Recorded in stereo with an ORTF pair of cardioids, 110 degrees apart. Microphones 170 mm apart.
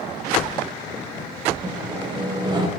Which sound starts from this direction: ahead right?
Sawing, at 1.6 s.